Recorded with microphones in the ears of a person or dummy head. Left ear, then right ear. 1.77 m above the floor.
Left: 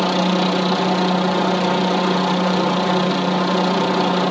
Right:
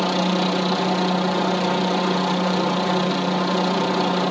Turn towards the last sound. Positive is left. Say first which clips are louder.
# left 3 dB
turn(degrees=5)  # may be behind; listen again after turning